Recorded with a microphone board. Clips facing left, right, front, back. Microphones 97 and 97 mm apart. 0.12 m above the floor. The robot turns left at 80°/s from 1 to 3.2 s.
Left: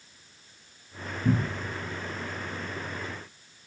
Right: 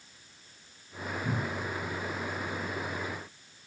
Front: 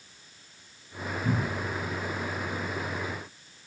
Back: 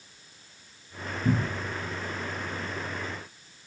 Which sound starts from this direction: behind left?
A cupboard door, at 1.2 s.